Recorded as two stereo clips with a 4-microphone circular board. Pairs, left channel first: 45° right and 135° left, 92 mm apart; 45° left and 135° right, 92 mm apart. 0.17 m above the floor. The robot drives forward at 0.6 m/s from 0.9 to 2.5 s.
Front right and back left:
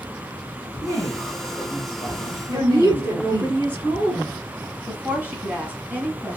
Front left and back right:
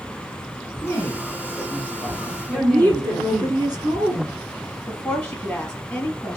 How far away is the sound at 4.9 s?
About 1.5 m.